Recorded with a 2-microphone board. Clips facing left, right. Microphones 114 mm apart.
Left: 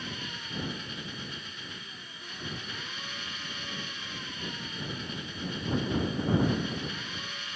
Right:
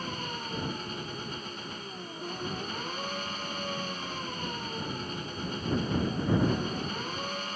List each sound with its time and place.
0.0 s an engine running: 45° right (ahead or behind)